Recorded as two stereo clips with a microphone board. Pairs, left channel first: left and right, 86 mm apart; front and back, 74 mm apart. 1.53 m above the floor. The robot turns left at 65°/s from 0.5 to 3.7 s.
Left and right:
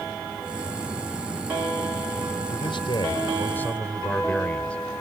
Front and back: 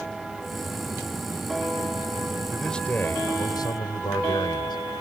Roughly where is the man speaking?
Left.